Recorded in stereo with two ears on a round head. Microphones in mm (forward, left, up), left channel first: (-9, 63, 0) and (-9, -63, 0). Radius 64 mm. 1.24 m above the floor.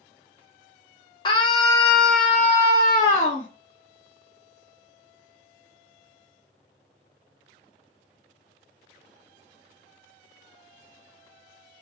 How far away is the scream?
About 0.9 m.